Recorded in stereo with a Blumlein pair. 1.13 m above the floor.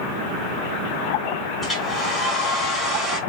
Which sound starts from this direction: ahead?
A hair dryer, at 1.6 s.